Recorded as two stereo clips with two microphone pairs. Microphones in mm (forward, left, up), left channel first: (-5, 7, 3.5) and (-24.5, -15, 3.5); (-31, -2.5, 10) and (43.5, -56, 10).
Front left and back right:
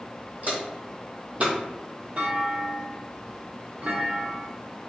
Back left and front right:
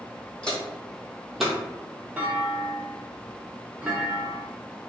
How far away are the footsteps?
About 1.2 m.